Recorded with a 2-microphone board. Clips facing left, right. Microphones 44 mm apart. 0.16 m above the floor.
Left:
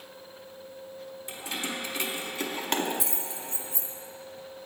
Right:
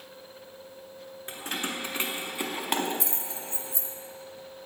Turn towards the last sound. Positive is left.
turn(degrees=30)  # may be behind; listen again after turning